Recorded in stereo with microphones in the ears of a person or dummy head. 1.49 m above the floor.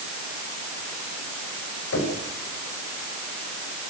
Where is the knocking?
70° left (ahead or behind), 7.5 m.